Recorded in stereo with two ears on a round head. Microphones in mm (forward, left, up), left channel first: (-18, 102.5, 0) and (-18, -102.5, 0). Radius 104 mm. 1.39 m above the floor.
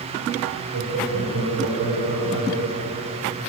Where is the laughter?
80° right, 6 m; by 3.1 s 60° right (ahead or behind), 6.5 m.